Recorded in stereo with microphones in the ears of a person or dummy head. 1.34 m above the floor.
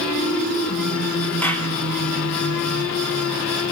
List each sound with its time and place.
1.4 s a clap: 10° left (ahead or behind), 3.5 m